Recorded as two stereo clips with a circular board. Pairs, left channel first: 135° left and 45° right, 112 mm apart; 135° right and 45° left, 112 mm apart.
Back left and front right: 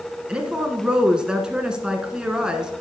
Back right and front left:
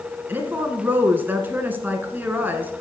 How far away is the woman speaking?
About 1.5 m.